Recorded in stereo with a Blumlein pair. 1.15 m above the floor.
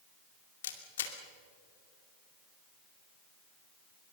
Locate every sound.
0.6 s a camera shutter: 60° left, 2.5 m